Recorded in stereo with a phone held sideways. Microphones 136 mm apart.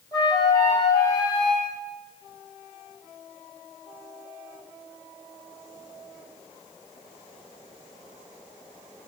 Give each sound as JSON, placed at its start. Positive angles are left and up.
{"t": 0.1, "sound": "a flute", "side_deg": 30, "distance_m": 8.5}